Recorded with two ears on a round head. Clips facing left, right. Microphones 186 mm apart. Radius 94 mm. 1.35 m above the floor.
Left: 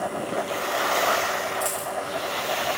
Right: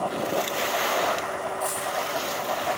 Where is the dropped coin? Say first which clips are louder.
Even; 30° left (ahead or behind), 8.5 m.